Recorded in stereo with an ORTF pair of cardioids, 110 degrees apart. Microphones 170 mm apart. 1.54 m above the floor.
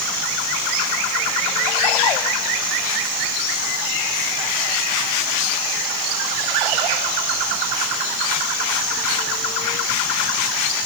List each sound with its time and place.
Only background noise.